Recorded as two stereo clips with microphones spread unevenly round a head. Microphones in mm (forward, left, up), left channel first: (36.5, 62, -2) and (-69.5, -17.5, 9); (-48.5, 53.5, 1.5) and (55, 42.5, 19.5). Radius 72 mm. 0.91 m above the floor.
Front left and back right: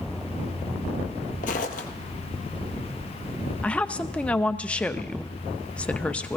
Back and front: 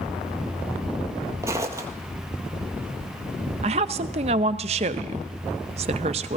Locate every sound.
1.4 s footsteps: 40° left, 1.5 m
3.6 s a woman speaking: 40° right, 0.5 m